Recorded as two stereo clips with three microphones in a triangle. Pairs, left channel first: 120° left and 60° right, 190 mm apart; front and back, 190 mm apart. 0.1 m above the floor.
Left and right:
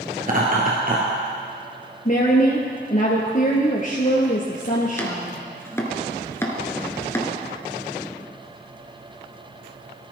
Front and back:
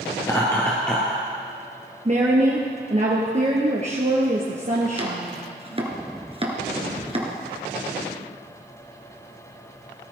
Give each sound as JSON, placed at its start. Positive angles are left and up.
{"t": 0.2, "sound": "laughter", "azimuth_deg": -60, "distance_m": 1.7}
{"t": 2.0, "sound": "a woman speaking", "azimuth_deg": 145, "distance_m": 1.8}
{"t": 5.0, "sound": "chopping", "azimuth_deg": -175, "distance_m": 1.6}